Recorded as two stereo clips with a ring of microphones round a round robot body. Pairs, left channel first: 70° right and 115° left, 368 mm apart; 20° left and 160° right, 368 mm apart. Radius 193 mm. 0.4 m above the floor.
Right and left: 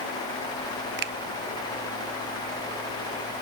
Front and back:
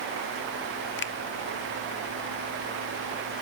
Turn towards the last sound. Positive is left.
turn(degrees=65)